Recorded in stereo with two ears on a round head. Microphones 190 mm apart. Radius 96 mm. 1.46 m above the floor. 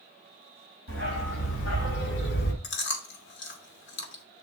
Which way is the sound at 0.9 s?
65° left (ahead or behind).